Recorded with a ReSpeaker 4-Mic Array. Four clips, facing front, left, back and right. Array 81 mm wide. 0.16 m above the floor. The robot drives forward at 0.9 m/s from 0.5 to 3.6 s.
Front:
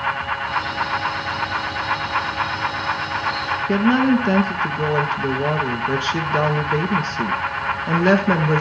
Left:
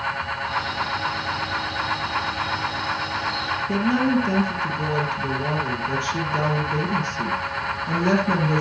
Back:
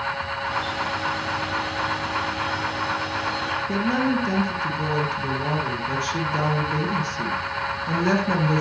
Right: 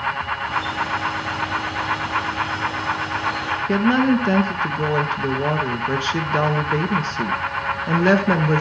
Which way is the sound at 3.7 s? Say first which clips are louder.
Right 4 dB, front 7 dB; 50° right.